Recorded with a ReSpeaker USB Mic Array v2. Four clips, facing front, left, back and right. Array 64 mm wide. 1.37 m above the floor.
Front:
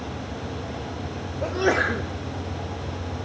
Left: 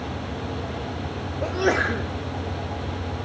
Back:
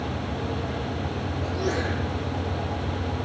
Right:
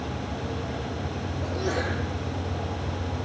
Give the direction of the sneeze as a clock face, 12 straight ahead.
11 o'clock.